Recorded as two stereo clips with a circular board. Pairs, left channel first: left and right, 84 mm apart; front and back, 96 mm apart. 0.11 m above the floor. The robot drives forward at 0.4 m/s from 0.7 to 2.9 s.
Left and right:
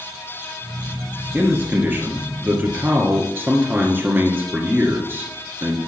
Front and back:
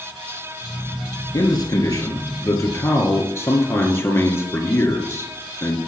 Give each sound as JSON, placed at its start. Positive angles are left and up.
{"t": 1.3, "sound": "a man speaking", "azimuth_deg": -25, "distance_m": 1.9}